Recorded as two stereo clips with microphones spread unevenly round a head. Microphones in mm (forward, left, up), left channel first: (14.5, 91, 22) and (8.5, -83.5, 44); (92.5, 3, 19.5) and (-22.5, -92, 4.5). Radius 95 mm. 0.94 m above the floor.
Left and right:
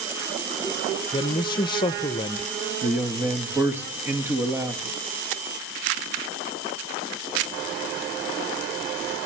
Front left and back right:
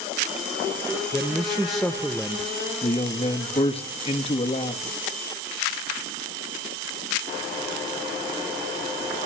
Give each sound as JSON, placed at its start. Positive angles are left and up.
{"t": 1.1, "sound": "a man speaking", "azimuth_deg": 135, "distance_m": 0.7}
{"t": 2.8, "sound": "a man speaking", "azimuth_deg": -10, "distance_m": 1.8}